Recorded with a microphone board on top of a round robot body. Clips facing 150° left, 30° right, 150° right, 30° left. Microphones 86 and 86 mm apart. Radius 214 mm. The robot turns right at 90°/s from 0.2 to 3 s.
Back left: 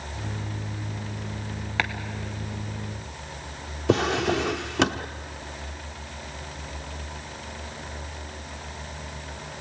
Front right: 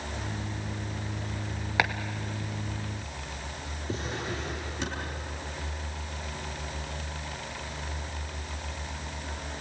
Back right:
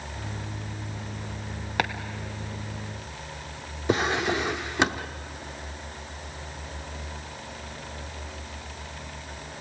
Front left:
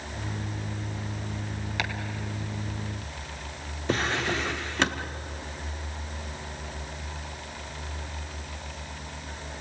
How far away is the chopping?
About 0.7 m.